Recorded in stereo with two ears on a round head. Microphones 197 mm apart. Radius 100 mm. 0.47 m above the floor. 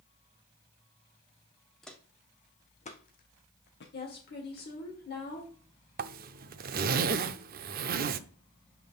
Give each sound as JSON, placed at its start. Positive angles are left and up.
{"t": 1.8, "sound": "footsteps", "side_deg": 0, "distance_m": 1.2}
{"t": 3.9, "sound": "a woman speaking", "side_deg": 50, "distance_m": 1.7}
{"t": 6.0, "sound": "a zipper", "side_deg": -45, "distance_m": 0.5}